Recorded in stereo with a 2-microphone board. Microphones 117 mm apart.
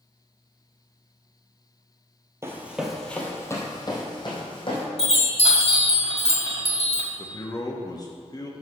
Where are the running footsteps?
25° right (ahead or behind), 1.7 m; by 4.8 s 50° left (ahead or behind), 3.5 m.